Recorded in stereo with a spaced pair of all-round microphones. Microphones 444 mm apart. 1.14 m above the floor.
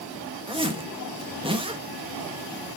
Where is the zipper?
10° right (ahead or behind), 1.2 m.